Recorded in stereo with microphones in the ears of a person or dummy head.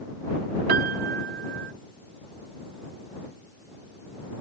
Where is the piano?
50° right (ahead or behind).